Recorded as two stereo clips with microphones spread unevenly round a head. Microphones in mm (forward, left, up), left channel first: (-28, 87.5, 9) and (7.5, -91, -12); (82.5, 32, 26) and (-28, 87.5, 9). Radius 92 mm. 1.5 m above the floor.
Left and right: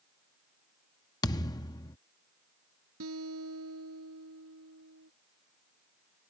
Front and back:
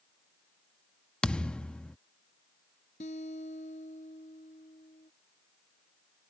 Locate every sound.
1.2 s a thud: 45° left
3.0 s a guitar: 75° right